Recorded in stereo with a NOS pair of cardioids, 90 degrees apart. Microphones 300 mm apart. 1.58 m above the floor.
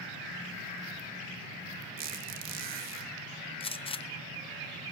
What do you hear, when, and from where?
2.0 s a squeak: 65° right, 1.8 m
3.6 s a gunshot: 20° left, 0.7 m